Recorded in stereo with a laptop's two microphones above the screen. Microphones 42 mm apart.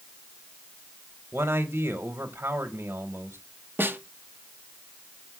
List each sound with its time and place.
1.3 s a man speaking: 65° right (ahead or behind), 0.9 m
3.8 s a snare drum: 55° right (ahead or behind), 0.6 m